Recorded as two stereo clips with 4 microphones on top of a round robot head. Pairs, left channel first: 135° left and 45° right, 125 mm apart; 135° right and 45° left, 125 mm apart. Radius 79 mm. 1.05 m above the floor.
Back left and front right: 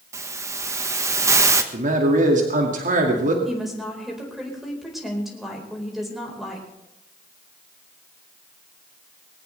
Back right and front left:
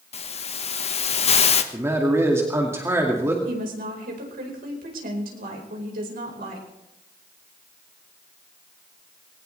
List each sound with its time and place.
0.1 s a hiss: 110° right, 1.5 m
1.7 s a man speaking: 25° right, 2 m
3.5 s a woman speaking: 45° left, 4.5 m